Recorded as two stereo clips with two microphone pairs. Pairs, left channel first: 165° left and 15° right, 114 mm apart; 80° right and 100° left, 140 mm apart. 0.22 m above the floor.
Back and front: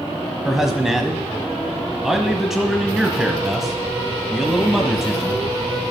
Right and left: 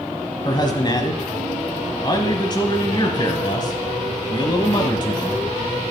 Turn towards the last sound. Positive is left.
turn(degrees=-100)